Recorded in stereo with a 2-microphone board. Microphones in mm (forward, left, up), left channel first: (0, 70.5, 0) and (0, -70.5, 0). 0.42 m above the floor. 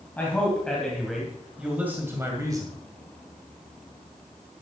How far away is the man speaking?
About 2.5 m.